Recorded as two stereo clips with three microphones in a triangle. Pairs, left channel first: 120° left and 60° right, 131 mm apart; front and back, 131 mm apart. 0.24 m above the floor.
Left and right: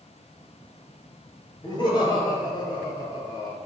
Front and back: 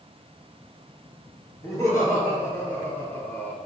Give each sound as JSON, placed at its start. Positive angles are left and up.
{"t": 1.6, "sound": "laughter", "azimuth_deg": 65, "distance_m": 3.0}